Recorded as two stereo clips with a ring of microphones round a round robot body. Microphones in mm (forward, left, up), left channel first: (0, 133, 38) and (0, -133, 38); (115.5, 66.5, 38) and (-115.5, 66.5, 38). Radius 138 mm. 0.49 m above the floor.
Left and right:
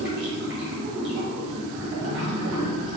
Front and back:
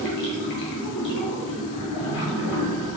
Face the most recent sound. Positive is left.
turn(degrees=-40)